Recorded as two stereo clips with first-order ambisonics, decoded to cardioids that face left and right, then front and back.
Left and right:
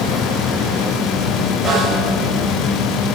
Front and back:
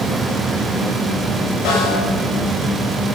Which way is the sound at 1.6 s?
5° left.